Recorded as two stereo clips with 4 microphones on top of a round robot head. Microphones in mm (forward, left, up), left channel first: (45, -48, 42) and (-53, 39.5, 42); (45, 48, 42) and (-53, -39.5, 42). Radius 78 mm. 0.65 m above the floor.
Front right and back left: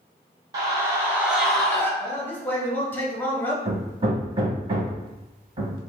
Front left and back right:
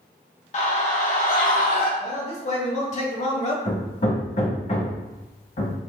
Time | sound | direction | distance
0.5 | a scream | 75° left | 1.9 m
2.0 | a man speaking | 30° left | 1.4 m
3.6 | hammering | 85° left | 0.9 m